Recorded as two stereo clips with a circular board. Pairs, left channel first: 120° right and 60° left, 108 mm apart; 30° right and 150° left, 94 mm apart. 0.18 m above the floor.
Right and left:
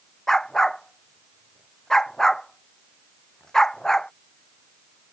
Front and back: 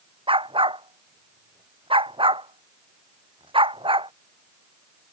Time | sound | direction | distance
0.3 | a dog barking | 155° left | ?